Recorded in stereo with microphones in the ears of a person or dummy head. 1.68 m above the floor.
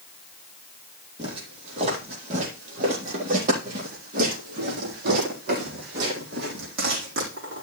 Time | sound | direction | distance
1.2 | footsteps | 35° right (ahead or behind) | 4 m